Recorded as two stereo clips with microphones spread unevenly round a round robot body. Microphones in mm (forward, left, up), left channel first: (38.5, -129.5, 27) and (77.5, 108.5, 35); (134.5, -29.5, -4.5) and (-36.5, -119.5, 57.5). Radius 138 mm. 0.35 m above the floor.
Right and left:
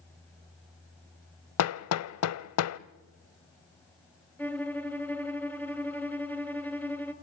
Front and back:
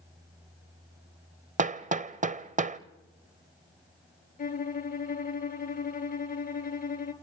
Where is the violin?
15° right, 2.5 m.